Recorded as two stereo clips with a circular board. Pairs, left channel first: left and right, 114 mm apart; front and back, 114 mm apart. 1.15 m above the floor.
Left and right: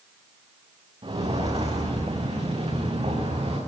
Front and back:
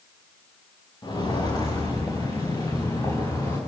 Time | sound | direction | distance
1.0 | footsteps | 50° right | 5 m